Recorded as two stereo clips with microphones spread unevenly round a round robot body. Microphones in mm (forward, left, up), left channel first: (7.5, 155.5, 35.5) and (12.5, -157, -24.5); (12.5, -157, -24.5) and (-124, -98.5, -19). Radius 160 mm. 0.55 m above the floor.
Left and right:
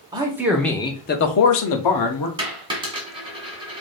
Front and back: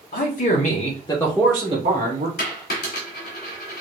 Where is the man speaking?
20° right, 1.3 m; by 2.3 s 115° left, 1.2 m.